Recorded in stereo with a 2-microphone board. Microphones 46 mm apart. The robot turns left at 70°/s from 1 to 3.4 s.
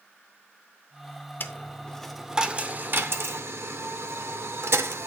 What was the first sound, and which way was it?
A dropped coin, 45° left (ahead or behind).